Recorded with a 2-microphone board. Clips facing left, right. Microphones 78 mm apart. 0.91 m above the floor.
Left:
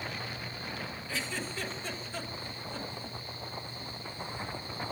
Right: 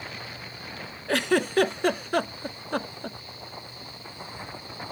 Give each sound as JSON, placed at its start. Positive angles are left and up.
{"t": 1.1, "sound": "a giggle", "side_deg": -65, "distance_m": 0.6}